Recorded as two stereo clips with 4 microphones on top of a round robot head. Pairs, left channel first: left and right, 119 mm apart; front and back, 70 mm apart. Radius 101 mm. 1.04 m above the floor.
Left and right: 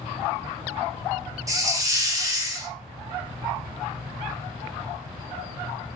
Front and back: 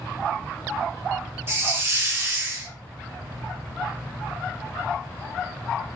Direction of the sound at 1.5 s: 140° right.